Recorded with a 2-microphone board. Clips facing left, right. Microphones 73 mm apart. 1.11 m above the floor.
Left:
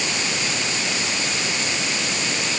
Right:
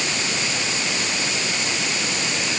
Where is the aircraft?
No aircraft in this recording.